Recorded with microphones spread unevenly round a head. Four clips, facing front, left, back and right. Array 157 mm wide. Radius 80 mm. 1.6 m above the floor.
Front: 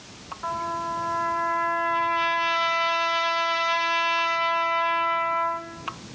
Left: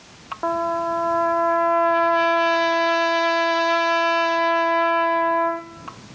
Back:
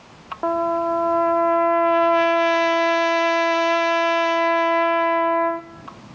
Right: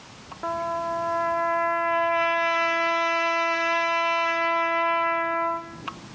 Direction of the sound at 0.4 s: 155° left.